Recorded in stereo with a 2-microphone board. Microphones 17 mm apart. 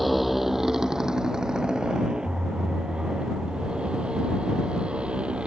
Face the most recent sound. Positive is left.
turn(degrees=-55)  # may be behind; listen again after turning